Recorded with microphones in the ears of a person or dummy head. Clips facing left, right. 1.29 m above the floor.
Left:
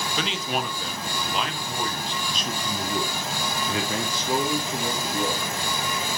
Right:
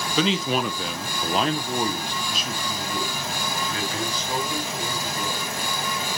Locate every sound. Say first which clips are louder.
0.2 s a man speaking: right 7 dB; 75° right (ahead or behind), 1.0 m; by 5.6 s 35° left (ahead or behind), 2.5 m